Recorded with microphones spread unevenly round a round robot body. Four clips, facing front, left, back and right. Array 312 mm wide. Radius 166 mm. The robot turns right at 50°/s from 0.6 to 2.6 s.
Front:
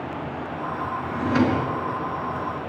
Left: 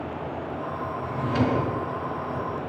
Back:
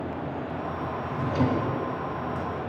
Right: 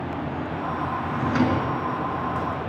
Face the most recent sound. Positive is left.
turn(degrees=30)